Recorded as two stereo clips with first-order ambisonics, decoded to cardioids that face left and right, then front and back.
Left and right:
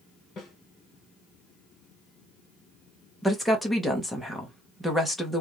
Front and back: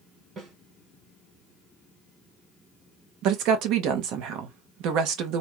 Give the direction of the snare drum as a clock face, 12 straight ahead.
8 o'clock.